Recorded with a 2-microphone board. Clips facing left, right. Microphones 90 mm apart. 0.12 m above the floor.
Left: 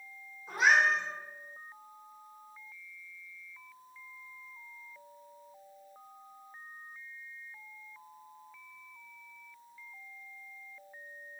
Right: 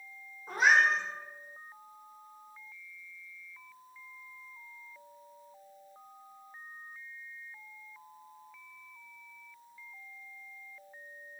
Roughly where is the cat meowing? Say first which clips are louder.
Right 1 dB; right.